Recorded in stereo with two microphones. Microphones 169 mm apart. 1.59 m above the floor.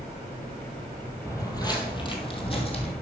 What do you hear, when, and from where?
1.2 s footsteps: 20° left (ahead or behind), 1.7 m; by 2.9 s 35° left (ahead or behind), 2.5 m